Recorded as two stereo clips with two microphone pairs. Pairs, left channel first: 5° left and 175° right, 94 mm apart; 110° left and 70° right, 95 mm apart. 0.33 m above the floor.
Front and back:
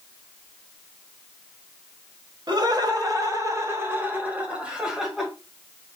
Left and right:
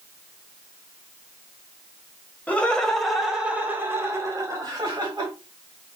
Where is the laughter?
175° left, 1.7 m; by 5.3 s 85° right, 2 m.